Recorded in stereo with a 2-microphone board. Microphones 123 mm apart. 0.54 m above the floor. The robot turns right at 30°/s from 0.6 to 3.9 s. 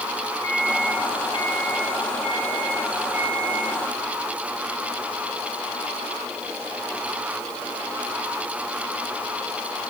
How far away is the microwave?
About 5.5 m.